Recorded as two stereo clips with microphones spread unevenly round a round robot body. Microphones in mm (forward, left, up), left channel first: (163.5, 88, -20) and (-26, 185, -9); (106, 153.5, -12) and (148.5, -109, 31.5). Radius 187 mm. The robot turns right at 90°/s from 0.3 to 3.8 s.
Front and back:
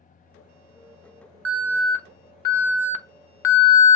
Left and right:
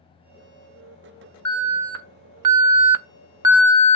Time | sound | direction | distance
1.4 | an alarm | straight behind | 0.7 m